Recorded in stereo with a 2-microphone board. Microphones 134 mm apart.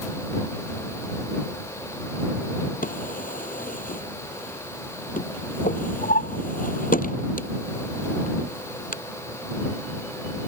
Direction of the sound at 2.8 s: 85° left.